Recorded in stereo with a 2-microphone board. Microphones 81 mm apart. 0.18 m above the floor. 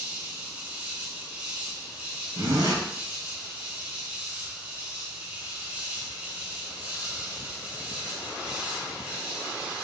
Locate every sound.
0.0 s an insect: 15° right (ahead or behind), 1.2 m
2.4 s a zipper: 55° right (ahead or behind), 1.7 m